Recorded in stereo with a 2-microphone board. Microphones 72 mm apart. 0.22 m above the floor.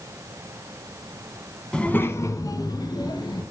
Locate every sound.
1.7 s a child speaking: 10° left (ahead or behind), 1.0 m; by 3.4 s 75° left (ahead or behind), 2.5 m